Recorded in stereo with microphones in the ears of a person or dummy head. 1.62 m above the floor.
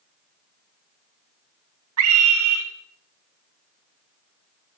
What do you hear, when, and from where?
2.0 s a scream: 80° right, 1.7 m